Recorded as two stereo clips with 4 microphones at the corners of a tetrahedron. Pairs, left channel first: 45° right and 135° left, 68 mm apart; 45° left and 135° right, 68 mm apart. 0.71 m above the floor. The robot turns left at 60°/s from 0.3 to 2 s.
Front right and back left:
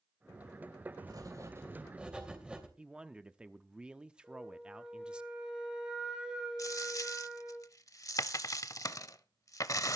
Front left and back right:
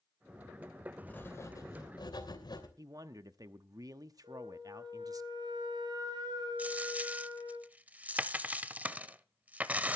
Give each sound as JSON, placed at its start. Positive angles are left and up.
{"t": 1.1, "sound": "writing", "azimuth_deg": 115, "distance_m": 3.0}
{"t": 2.8, "sound": "a man speaking", "azimuth_deg": -155, "distance_m": 1.0}
{"t": 4.2, "sound": "a flute", "azimuth_deg": -145, "distance_m": 5.0}
{"t": 6.6, "sound": "a dropped coin", "azimuth_deg": -70, "distance_m": 0.6}